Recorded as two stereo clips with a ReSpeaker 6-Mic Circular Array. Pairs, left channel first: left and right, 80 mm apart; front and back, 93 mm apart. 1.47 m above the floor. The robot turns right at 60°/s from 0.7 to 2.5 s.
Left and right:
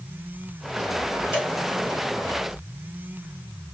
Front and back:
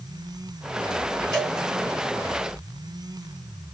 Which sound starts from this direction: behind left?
A cowbell, at 1.3 s.